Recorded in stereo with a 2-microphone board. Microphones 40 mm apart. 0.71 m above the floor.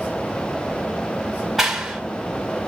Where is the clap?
5° right (ahead or behind), 1.9 m.